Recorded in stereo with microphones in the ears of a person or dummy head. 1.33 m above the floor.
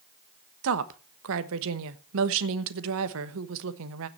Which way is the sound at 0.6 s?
70° right (ahead or behind).